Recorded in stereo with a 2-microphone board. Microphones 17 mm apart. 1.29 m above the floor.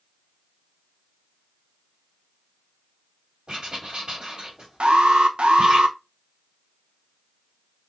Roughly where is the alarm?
Right.